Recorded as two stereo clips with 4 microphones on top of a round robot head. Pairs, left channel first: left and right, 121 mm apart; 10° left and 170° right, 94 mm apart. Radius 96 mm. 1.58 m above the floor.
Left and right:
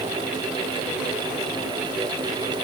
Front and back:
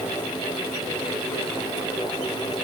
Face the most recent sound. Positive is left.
No sound to turn to.